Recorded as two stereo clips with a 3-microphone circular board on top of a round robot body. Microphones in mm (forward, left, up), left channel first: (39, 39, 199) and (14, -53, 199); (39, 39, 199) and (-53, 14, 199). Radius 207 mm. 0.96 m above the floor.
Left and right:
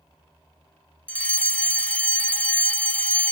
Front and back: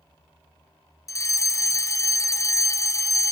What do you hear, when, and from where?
1.1 s a fire alarm: 10° left